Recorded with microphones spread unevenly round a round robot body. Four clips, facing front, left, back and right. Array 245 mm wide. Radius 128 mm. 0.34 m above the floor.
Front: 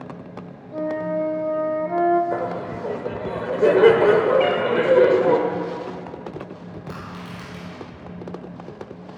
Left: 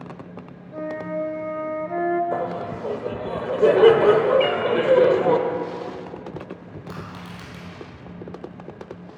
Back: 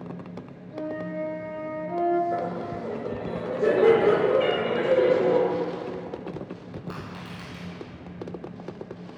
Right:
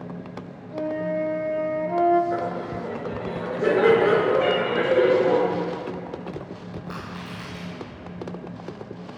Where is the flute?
20° right, 0.8 m.